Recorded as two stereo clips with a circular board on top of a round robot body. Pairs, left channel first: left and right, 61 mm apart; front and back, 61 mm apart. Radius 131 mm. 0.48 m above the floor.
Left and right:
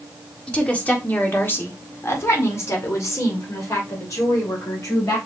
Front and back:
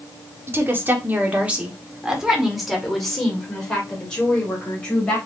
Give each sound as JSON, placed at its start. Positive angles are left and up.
{"t": 0.5, "sound": "a woman speaking", "azimuth_deg": 155, "distance_m": 1.6}